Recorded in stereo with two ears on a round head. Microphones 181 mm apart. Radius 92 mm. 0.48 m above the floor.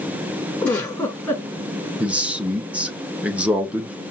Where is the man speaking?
5° right (ahead or behind), 0.8 m.